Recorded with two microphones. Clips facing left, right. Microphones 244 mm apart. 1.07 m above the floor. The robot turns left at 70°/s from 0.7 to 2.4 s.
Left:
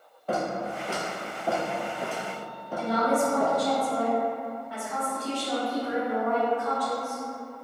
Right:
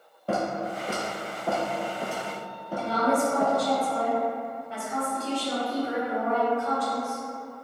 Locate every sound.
0.3 s footsteps: 35° right (ahead or behind), 1.2 m; by 3.5 s 20° right (ahead or behind), 1.3 m
2.8 s a woman speaking: 25° right (ahead or behind), 1.2 m